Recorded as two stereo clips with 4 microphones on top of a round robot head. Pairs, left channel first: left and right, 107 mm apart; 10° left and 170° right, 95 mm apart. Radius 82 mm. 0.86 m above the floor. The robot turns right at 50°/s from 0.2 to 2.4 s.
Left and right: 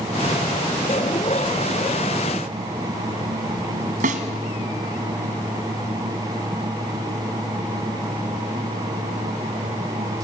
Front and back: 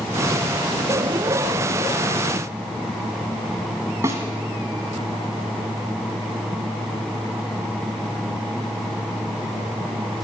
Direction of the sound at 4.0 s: 100° right.